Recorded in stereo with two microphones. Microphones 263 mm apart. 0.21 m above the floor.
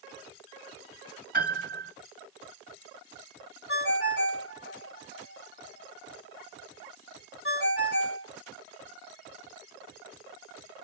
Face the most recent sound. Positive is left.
turn(degrees=50)  # may be behind; listen again after turning